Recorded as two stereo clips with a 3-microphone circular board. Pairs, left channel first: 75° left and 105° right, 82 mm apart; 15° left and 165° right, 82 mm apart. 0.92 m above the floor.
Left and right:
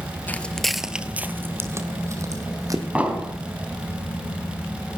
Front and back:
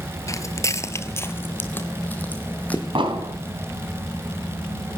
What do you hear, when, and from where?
0.3 s footsteps: 20° left, 1.0 m; by 2.9 s 55° right, 2.5 m
3.0 s an explosion: straight behind, 4 m